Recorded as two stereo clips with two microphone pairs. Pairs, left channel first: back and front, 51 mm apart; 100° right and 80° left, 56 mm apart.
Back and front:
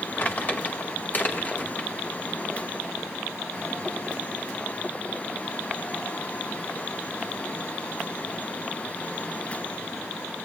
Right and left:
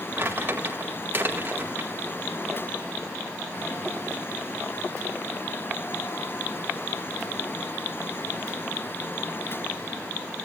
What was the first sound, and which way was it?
Crumpling, 130° left.